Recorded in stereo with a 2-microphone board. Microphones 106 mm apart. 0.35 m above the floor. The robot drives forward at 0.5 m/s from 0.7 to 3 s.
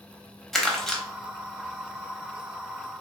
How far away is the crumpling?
About 0.7 m.